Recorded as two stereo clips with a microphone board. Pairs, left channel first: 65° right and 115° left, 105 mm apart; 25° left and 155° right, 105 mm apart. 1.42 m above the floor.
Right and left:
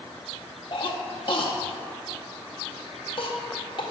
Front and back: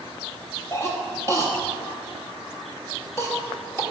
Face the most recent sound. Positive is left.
turn(degrees=-40)